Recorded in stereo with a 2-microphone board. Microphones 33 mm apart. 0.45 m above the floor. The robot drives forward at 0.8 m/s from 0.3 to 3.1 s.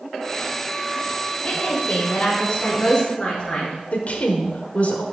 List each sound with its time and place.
1.4 s a woman speaking: 45° left (ahead or behind), 1.5 m; by 3.8 s 25° left (ahead or behind), 2.5 m
3.9 s a woman speaking: 50° left (ahead or behind), 1.2 m